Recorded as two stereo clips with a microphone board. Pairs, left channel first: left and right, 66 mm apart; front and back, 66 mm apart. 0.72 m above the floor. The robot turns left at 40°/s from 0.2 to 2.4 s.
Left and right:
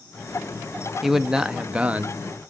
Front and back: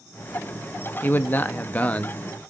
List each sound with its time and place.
1.0 s a man speaking: 5° right, 0.6 m; by 2.2 s 50° right, 0.6 m